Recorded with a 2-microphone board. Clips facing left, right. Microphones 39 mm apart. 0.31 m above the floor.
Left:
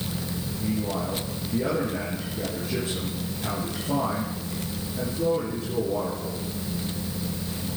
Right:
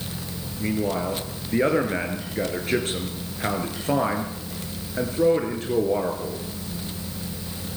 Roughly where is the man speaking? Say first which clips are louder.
Right 4 dB; right.